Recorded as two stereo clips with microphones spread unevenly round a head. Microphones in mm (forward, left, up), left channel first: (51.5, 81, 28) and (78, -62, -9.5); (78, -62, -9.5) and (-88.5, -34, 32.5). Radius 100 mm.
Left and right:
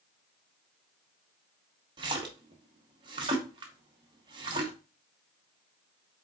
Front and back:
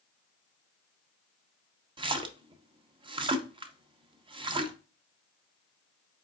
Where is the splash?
150° right, 0.6 m.